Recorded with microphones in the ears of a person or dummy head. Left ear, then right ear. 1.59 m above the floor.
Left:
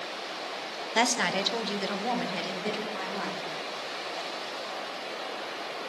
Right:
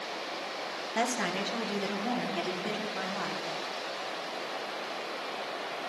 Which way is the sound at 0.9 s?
40° left (ahead or behind).